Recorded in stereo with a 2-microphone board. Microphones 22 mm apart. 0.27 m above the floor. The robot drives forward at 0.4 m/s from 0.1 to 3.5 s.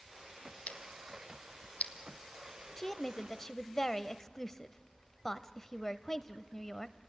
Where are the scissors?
80° left, 1.7 m; by 1.9 s 85° left, 1.6 m.